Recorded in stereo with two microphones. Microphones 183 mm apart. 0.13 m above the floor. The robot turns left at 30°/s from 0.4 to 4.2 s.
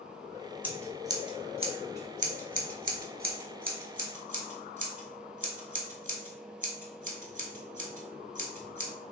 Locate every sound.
0.6 s scissors: 10° right (ahead or behind), 0.8 m; by 8.9 s 50° right (ahead or behind), 0.8 m